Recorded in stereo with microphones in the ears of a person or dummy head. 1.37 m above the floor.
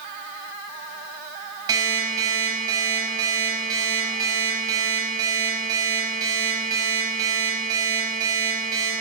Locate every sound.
1.7 s an alarm clock: 20° right (ahead or behind), 4.5 m